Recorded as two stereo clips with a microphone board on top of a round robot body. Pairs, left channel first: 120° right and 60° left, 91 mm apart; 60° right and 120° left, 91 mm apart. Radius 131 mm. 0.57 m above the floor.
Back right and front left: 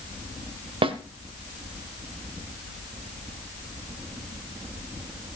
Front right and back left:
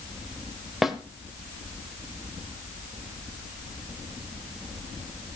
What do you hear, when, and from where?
0.8 s a snare drum: 30° left, 1.3 m